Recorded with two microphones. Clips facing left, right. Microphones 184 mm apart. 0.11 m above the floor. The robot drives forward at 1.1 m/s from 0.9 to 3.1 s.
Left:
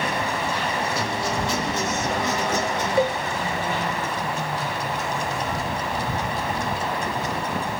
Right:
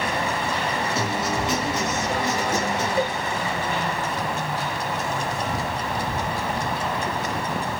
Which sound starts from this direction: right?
A guitar, at 0.9 s.